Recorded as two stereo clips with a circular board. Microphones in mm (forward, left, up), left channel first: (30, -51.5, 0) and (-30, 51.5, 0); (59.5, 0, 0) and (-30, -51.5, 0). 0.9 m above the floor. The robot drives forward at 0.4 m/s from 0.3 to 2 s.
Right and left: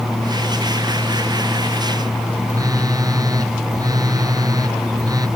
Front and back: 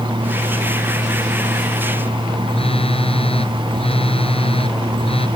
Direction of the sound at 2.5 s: 60° left.